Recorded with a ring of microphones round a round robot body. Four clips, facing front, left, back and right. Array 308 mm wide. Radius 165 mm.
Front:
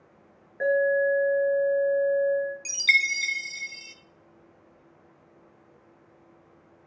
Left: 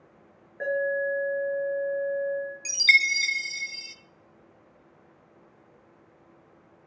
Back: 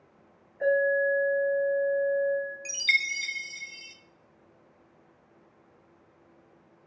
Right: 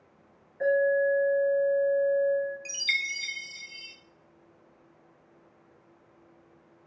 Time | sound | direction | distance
0.6 | an alarm | 35° left | 4 m
2.6 | a chime | 65° left | 0.6 m